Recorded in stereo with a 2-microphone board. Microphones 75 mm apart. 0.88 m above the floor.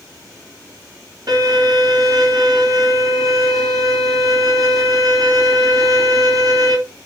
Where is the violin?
50° right (ahead or behind), 4 m.